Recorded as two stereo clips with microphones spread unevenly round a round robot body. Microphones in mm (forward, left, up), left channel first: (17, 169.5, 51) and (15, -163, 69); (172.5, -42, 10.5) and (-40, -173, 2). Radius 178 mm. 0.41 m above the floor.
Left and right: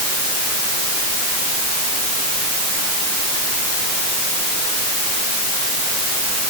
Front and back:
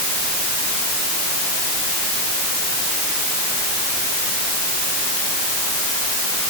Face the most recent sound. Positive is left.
No sound to turn to.